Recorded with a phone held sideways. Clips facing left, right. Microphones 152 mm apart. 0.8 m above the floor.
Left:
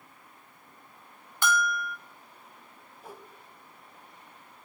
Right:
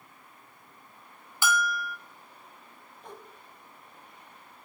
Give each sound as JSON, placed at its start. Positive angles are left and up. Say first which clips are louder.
{"t": 1.4, "sound": "a bell", "louder": "left 1 dB", "side_deg": -5, "distance_m": 0.9}
{"t": 3.0, "sound": "a whoosh", "louder": "even", "side_deg": 5, "distance_m": 0.8}